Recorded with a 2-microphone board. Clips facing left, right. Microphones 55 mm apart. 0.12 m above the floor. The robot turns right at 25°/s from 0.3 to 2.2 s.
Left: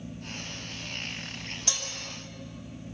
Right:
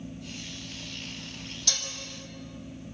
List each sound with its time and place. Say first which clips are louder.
1.7 s dishes clattering: right 2 dB; 25° left (ahead or behind), 3 m; by 1.9 s 20° left (ahead or behind), 3 m